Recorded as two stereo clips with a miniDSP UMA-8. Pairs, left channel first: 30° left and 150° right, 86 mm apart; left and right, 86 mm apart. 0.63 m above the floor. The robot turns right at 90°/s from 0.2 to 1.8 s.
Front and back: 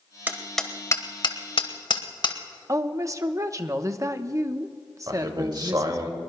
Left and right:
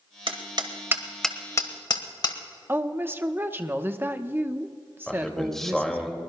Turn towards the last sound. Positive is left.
turn(degrees=175)